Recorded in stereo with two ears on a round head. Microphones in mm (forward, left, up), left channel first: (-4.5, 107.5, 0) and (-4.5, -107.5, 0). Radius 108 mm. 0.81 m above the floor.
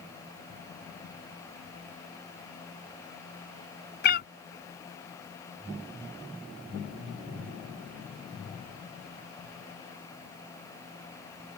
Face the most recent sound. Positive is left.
turn(degrees=45)  # may be behind; listen again after turning